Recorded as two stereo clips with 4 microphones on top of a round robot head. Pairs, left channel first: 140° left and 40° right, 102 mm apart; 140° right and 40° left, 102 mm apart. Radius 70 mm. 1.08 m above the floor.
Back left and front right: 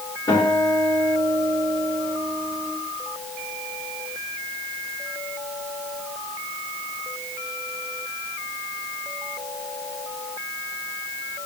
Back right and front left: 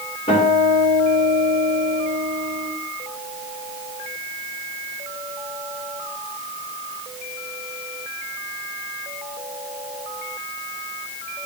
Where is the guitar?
165° right, 4.5 m.